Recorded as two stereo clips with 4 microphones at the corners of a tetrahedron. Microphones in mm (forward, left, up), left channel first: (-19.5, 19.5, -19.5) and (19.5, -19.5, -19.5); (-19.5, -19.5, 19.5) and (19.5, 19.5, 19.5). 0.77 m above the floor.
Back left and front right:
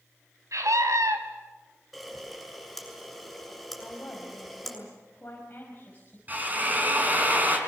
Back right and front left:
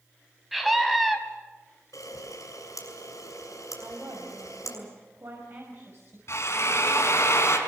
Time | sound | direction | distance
0.5 | a scream | 45° right | 4.5 m
1.9 | a camera shutter | 135° right | 7 m
3.8 | a woman speaking | 80° left | 5 m
6.3 | a drill | 105° right | 4.5 m